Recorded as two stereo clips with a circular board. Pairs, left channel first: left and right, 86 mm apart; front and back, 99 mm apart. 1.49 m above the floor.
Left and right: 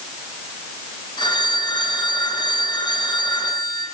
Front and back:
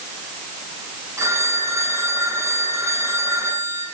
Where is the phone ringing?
120° left, 7 m.